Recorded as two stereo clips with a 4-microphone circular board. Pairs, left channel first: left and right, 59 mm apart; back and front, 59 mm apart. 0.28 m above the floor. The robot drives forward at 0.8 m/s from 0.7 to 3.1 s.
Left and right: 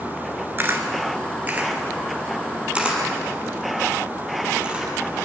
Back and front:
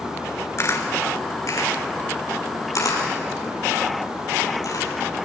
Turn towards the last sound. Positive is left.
turn(degrees=-160)